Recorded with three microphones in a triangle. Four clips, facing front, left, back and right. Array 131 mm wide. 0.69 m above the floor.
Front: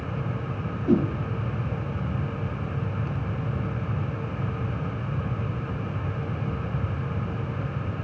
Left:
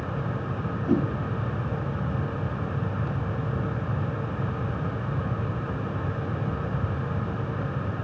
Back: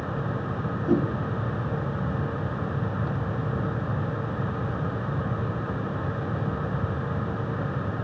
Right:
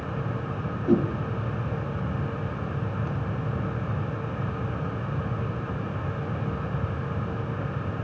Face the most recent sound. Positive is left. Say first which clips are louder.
# right 2 dB, front 2 dB
turn(degrees=-30)